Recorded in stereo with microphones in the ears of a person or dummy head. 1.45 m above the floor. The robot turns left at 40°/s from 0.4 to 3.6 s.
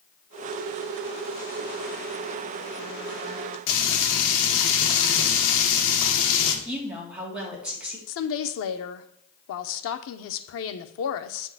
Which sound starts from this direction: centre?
A woman speaking, at 6.7 s.